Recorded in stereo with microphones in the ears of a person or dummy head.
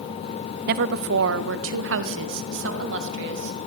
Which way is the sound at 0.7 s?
60° right (ahead or behind).